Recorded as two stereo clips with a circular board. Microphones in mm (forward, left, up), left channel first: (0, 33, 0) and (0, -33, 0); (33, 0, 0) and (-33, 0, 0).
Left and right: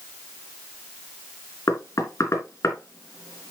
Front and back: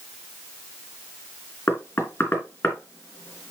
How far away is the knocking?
About 3 m.